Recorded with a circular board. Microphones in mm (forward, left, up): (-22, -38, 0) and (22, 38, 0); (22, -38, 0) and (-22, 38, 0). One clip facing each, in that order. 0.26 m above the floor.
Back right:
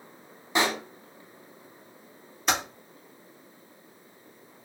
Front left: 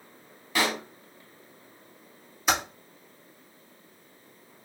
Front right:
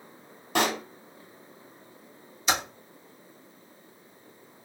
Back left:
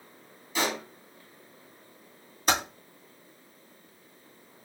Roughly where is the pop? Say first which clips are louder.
Back right 1 dB, front right 4 dB; ahead right.